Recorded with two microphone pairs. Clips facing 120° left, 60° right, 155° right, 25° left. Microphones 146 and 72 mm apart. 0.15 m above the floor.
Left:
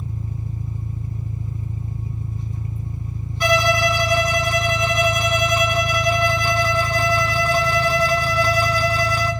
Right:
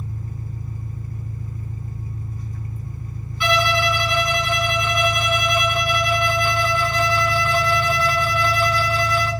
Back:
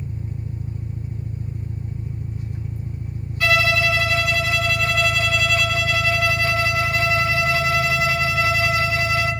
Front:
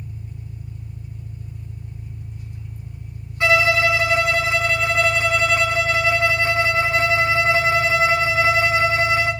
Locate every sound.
0.0 s an engine running: straight behind, 2 m
3.4 s a violin: 90° left, 1.8 m